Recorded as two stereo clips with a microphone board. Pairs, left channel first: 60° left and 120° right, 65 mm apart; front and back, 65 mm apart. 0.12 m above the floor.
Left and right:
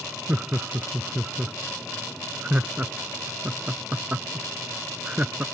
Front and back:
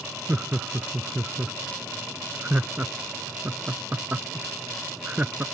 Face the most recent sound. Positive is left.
turn(degrees=-155)